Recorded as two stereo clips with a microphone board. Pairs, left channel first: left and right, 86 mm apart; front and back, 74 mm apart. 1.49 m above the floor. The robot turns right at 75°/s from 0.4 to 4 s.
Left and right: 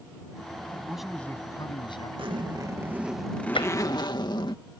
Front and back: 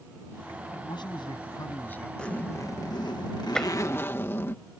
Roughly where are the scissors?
I don't hear scissors.